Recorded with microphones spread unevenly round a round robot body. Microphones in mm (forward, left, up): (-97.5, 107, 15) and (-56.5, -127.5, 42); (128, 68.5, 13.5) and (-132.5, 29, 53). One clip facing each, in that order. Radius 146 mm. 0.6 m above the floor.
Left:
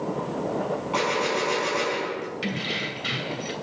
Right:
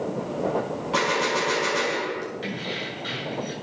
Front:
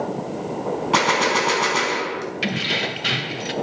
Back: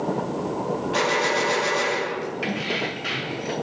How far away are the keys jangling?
About 2.0 m.